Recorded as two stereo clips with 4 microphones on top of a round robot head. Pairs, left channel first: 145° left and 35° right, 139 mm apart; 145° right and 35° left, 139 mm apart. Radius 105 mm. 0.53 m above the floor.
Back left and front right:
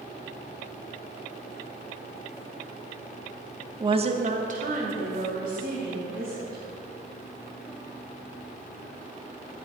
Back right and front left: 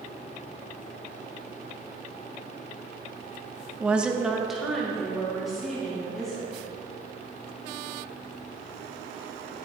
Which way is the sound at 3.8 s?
30° right.